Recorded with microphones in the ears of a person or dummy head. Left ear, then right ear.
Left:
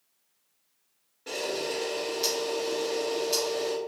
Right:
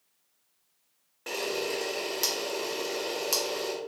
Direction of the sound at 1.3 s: 35° right (ahead or behind).